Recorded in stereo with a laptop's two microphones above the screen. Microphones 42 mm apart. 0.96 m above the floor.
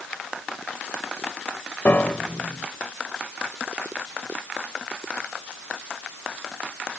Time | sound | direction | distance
1.9 | a piano | 55° left (ahead or behind) | ?